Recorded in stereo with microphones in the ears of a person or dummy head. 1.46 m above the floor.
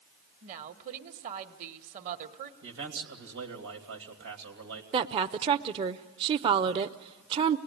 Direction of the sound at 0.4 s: 50° right (ahead or behind).